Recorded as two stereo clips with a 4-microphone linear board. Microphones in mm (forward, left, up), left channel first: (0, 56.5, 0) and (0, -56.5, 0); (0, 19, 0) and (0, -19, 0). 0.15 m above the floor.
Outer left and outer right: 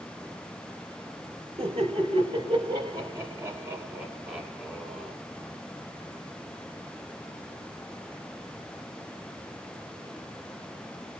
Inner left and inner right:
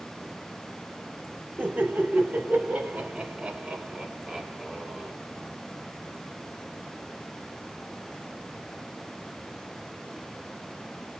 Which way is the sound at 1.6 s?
50° right (ahead or behind).